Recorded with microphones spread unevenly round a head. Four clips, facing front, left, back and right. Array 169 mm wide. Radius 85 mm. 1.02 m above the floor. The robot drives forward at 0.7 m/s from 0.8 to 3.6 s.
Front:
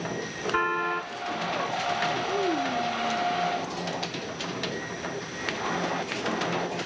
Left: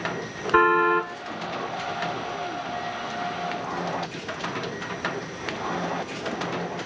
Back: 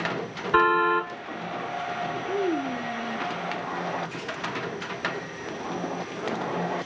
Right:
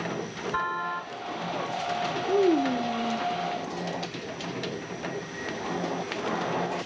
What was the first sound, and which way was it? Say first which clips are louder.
A car horn: left 12 dB, back 7 dB; 110° left.